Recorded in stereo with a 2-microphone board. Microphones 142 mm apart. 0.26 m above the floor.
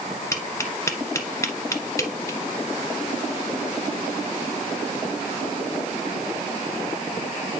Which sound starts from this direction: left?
Tapping, at 0.3 s.